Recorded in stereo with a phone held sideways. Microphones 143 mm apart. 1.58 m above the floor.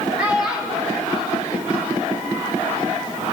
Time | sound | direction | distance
0.2 | a child speaking | 10° right (ahead or behind) | 4.5 m